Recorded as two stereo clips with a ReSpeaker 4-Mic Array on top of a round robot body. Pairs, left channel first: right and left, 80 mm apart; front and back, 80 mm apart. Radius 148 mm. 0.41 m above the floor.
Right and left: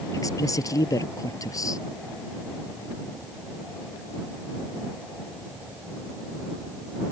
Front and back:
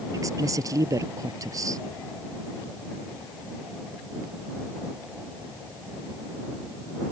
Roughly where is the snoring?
No snoring in this recording.